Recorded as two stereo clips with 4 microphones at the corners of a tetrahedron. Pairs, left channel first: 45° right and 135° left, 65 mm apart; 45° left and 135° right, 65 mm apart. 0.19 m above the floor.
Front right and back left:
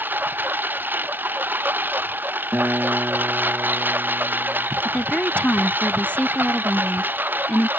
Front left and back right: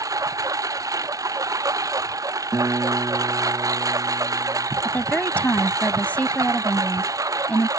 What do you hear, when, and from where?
0.0 s a lawn mower: 165° right
2.5 s a guitar: 165° right
4.8 s a woman speaking: straight ahead